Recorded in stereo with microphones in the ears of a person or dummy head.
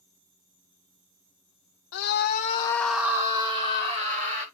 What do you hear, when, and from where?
1.9 s a scream: 55° left (ahead or behind), 0.5 m; by 4.5 s 25° right (ahead or behind), 1.3 m